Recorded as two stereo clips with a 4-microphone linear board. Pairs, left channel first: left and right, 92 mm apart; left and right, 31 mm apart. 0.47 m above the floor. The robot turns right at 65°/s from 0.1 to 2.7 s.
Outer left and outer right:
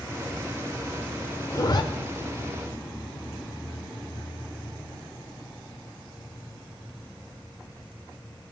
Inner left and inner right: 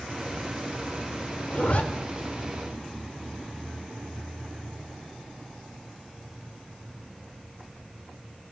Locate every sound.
1.5 s a zipper: 40° left (ahead or behind), 1.1 m; by 1.8 s 50° left (ahead or behind), 1.1 m